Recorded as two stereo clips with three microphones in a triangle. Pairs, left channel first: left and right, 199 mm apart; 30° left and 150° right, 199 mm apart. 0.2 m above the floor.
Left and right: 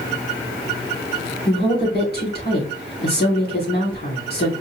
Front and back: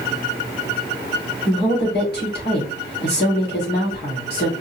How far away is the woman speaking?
About 3 m.